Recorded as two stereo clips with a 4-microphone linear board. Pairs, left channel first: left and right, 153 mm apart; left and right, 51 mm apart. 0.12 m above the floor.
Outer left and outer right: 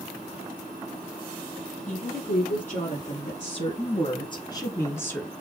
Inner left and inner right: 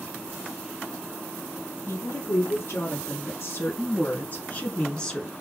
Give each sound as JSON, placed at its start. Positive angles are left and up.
{"t": 1.9, "sound": "a woman speaking", "side_deg": 60, "distance_m": 2.5}